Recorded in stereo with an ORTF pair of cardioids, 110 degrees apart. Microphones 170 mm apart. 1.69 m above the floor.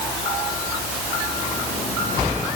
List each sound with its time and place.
Only background noise.